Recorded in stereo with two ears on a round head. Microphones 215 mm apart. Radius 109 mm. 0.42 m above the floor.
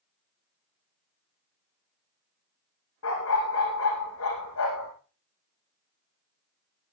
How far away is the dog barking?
About 9 m.